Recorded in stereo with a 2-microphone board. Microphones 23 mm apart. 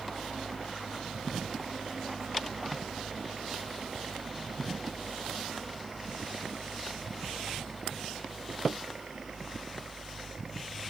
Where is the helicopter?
35° right (ahead or behind).